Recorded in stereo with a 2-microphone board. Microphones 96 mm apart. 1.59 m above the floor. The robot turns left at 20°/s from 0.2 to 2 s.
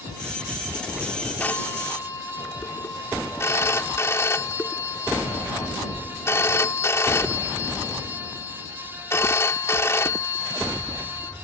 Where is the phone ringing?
15° left (ahead or behind); by 11.3 s 30° left (ahead or behind).